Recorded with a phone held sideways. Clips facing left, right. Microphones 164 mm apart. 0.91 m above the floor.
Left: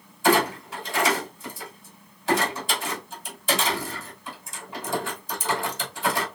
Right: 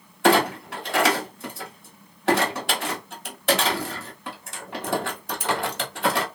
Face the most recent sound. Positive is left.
turn(degrees=-70)  # may be behind; listen again after turning